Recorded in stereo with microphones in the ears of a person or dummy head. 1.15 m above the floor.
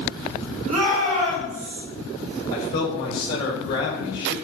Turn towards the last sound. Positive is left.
turn(degrees=50)  # may be behind; listen again after turning